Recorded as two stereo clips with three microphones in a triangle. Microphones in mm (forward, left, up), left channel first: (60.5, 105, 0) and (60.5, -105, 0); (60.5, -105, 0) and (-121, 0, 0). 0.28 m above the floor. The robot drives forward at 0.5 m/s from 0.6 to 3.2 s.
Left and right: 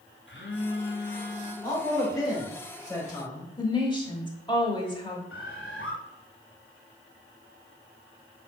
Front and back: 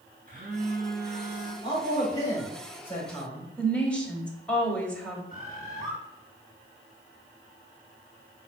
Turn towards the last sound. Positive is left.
turn(degrees=95)